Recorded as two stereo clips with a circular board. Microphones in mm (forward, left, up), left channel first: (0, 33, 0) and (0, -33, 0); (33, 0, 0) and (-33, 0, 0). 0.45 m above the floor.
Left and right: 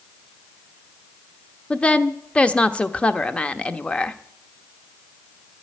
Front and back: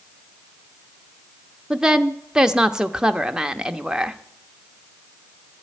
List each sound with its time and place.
1.7 s a woman speaking: 120° left, 0.7 m